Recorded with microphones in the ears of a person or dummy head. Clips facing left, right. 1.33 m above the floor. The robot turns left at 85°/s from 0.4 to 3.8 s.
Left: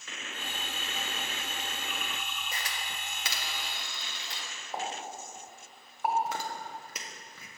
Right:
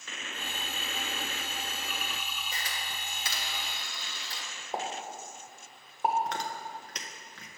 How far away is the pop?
About 0.8 m.